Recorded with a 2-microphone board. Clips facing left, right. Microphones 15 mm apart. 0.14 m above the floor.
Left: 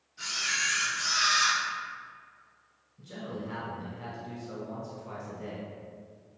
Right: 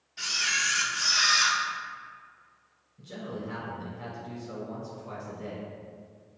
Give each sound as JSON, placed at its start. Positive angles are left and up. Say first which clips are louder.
{"t": 0.2, "sound": "a camera shutter", "louder": "right 3 dB", "side_deg": -70, "distance_m": 1.0}
{"t": 3.0, "sound": "a man speaking", "louder": "right 1 dB", "side_deg": -5, "distance_m": 1.1}